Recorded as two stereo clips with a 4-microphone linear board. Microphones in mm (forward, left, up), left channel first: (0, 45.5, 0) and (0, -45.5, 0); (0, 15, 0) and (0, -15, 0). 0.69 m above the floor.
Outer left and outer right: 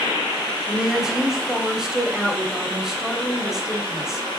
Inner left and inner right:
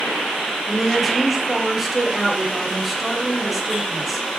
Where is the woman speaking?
5° right (ahead or behind), 3 m.